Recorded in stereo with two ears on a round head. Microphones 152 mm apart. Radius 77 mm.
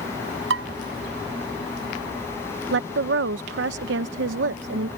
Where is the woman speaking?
75° right (ahead or behind).